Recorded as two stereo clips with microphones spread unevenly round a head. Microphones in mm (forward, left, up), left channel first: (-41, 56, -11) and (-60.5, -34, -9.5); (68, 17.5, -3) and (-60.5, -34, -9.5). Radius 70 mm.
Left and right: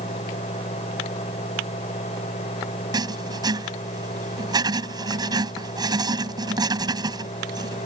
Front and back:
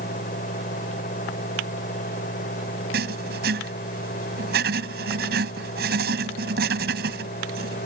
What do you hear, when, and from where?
0.0 s a fan: 55° left
2.9 s writing: 145° right